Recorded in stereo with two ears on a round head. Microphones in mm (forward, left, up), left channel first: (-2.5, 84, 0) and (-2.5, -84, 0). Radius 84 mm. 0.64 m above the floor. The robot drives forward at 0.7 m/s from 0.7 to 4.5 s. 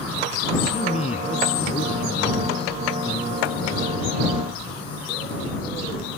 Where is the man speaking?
35° left (ahead or behind); by 4.2 s 30° left (ahead or behind).